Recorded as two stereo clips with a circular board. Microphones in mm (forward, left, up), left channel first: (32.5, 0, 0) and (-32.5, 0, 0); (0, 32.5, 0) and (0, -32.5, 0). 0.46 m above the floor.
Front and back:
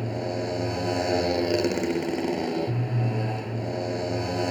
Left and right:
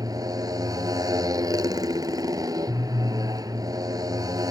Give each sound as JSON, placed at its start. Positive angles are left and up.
{"t": 0.0, "sound": "a motorcycle", "azimuth_deg": -90}